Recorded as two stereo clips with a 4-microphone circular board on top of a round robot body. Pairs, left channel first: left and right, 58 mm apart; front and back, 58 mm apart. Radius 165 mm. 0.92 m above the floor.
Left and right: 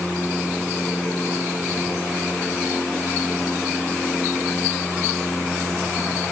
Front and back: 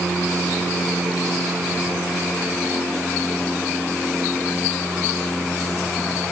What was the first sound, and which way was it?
Only background noise.